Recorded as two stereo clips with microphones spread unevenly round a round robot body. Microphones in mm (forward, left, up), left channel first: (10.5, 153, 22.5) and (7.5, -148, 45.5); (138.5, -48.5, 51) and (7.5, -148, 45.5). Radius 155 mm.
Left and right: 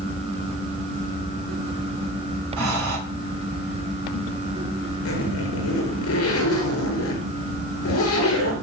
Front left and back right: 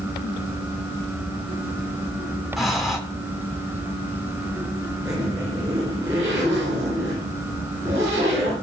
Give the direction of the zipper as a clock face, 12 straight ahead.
7 o'clock.